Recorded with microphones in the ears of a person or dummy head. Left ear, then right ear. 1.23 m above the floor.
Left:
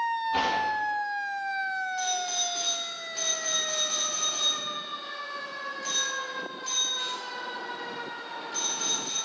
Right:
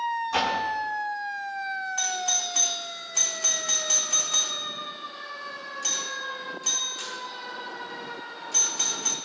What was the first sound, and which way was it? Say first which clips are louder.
A door slam: right 1 dB; 65° right (ahead or behind).